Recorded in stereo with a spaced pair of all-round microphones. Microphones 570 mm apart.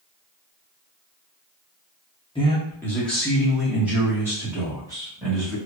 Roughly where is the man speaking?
Centre.